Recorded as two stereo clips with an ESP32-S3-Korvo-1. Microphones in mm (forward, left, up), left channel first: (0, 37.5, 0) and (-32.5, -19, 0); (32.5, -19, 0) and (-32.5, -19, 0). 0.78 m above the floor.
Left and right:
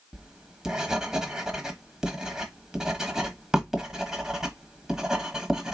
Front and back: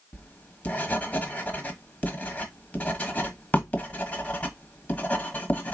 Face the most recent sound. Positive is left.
turn(degrees=-45)